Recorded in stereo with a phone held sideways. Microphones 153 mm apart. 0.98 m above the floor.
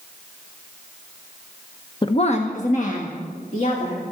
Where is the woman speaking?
30° left (ahead or behind), 0.6 m; by 4.0 s 55° left (ahead or behind), 3 m.